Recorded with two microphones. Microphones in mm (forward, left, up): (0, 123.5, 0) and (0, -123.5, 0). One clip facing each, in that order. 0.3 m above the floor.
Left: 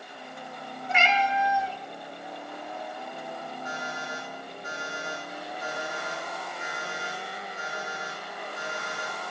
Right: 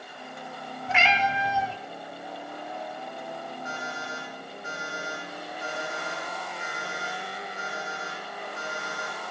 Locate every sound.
0.9 s a cat meowing: 75° right (ahead or behind), 1.2 m
3.6 s an alarm clock: 40° left (ahead or behind), 9 m